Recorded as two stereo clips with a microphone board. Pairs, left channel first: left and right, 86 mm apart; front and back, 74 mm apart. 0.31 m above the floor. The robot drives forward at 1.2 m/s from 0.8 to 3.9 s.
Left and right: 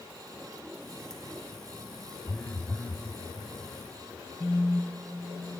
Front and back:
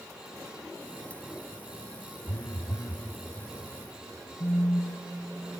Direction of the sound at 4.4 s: 25° left.